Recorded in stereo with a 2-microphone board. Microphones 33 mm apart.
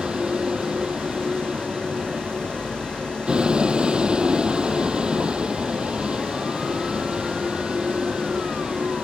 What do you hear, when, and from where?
0.0 s a vehicle: 25° right (ahead or behind)